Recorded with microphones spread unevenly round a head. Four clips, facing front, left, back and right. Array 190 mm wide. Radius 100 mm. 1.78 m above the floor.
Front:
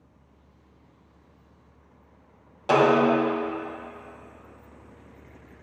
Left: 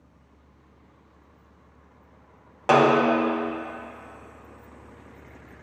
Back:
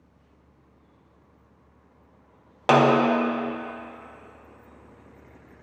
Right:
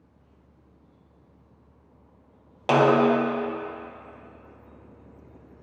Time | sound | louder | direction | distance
2.7 | a snare drum | even, back 1 dB | 170° right | 1.0 m